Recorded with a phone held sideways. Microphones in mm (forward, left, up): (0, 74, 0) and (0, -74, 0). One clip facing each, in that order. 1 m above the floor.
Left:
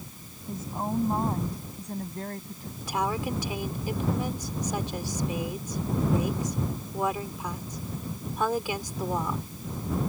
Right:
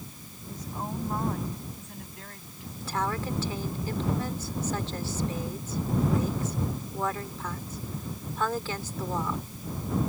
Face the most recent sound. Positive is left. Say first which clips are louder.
# left 2 dB
turn(degrees=15)  # may be behind; listen again after turning